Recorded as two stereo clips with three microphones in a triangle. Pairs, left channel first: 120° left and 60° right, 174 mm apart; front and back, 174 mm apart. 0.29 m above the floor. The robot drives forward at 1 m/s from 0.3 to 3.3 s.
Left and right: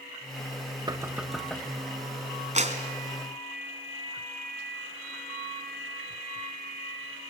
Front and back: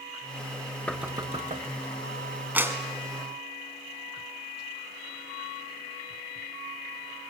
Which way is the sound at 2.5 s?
100° right.